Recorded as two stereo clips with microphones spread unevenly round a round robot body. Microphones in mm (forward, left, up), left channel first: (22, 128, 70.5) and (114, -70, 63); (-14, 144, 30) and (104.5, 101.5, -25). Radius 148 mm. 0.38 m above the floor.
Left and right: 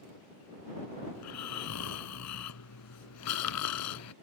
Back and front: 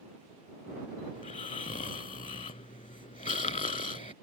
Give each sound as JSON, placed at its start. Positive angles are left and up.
{"t": 1.1, "sound": "snoring", "azimuth_deg": 130}